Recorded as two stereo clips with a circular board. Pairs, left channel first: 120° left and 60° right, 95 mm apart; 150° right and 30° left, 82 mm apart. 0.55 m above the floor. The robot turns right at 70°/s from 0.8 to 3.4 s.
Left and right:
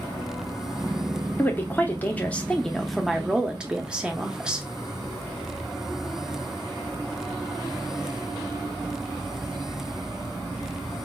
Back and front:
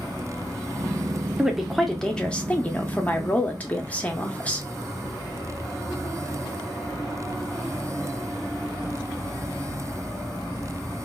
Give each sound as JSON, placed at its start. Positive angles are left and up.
{"t": 1.4, "sound": "a woman speaking", "azimuth_deg": 100, "distance_m": 0.7}